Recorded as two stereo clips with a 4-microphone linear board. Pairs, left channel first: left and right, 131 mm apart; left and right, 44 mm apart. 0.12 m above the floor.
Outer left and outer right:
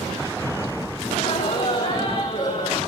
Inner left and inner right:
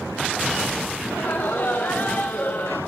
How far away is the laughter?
About 8.5 m.